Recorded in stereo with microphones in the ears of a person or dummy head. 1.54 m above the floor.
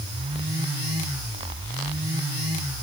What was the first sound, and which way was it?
Only background noise.